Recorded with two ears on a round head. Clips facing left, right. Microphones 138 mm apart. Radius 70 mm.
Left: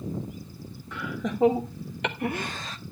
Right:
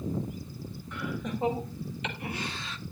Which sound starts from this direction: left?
Laughter, at 0.9 s.